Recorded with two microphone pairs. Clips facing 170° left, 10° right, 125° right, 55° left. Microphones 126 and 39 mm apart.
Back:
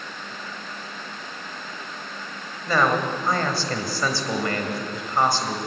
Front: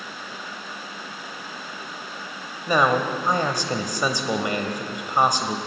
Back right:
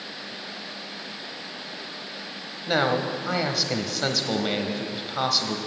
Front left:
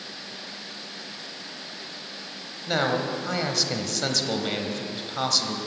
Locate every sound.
2.7 s a man speaking: 60° right, 1.2 m